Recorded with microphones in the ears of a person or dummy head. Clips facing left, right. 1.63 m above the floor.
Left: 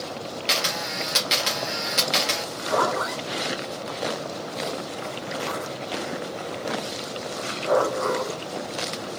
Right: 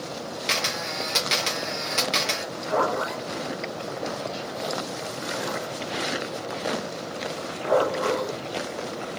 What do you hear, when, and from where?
0.5 s a camera shutter: 5° left (ahead or behind), 0.9 m
2.7 s a zipper: 35° left (ahead or behind), 1.4 m